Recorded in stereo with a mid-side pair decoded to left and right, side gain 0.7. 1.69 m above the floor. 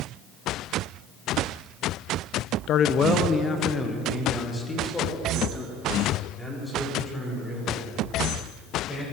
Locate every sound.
2.7 s a man speaking: 50° left, 0.7 m; by 9.0 s 10° left, 8 m